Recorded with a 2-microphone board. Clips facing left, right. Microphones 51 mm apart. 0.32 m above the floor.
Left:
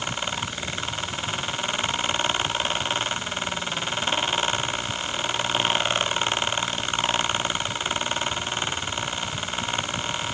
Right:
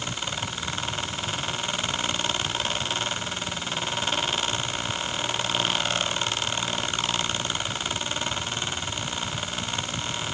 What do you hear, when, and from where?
Only background noise.